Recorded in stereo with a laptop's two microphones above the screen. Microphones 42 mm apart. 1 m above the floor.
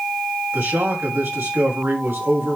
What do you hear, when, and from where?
0.5 s a man speaking: 85° right, 5.5 m